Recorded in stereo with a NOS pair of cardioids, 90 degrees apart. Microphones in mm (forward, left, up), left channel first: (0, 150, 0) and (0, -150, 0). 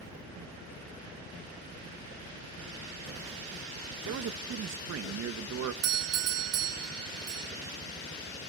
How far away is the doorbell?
About 1.3 m.